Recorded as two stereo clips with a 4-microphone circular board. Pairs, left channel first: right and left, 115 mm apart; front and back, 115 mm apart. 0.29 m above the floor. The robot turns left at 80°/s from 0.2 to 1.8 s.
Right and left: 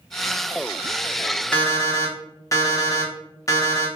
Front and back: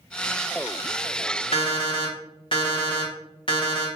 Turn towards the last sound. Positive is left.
turn(degrees=-30)